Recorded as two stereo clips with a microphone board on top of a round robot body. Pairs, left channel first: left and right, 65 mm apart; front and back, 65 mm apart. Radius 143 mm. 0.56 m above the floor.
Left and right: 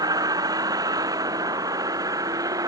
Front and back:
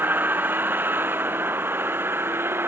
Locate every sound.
0.0 s a vehicle: 115° right; by 2.7 s 125° right